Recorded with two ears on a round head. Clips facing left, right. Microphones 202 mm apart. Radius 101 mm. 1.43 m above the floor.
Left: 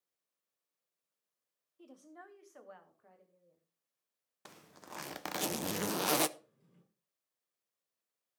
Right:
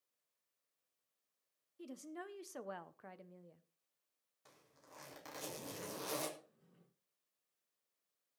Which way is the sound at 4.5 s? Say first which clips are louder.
Left 11 dB; 75° left (ahead or behind).